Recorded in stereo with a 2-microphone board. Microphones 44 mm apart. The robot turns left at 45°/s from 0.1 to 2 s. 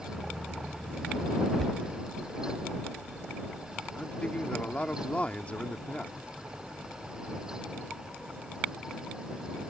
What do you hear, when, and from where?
1.6 s a cupboard door: 5° left (ahead or behind); by 1.8 s 15° left (ahead or behind)
3.9 s a man speaking: 30° left (ahead or behind)